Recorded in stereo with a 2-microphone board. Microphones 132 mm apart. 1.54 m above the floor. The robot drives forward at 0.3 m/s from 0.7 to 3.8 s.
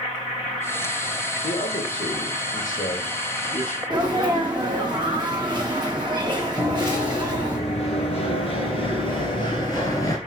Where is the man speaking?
80° left, 1.0 m; by 3.8 s 65° left (ahead or behind), 1.1 m.